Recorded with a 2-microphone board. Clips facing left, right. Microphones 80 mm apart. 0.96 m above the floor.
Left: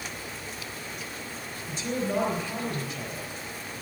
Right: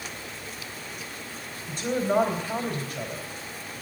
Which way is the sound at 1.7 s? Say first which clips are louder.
Right 4 dB; 55° right (ahead or behind).